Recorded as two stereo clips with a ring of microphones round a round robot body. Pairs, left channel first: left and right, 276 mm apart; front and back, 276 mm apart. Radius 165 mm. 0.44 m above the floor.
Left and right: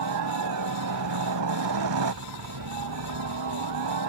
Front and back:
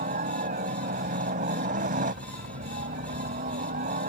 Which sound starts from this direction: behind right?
A helicopter, at 0.0 s.